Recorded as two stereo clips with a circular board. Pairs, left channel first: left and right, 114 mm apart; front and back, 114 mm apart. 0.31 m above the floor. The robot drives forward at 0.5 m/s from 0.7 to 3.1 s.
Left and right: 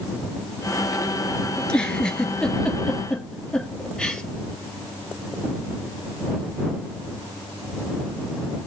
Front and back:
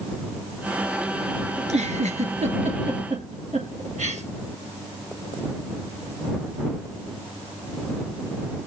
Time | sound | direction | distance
1.6 | a giggle | 170° left | 1.4 m